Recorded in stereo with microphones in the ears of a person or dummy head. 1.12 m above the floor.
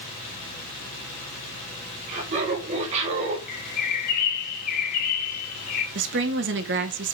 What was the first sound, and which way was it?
Laughter, 40° right (ahead or behind).